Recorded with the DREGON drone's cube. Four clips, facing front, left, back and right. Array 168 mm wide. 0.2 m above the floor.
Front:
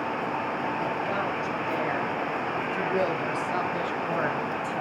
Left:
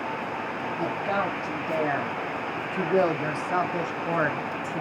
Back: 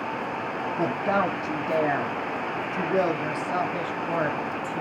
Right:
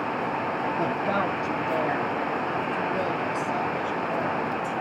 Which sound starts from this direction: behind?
A woman speaking, at 0.8 s.